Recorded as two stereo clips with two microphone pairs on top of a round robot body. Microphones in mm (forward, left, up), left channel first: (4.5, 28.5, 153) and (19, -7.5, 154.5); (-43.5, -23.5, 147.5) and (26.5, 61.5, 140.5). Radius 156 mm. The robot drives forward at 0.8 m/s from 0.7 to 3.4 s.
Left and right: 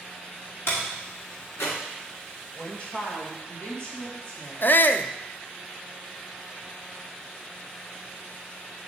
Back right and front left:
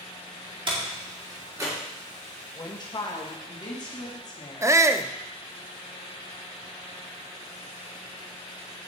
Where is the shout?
105° left, 0.7 m.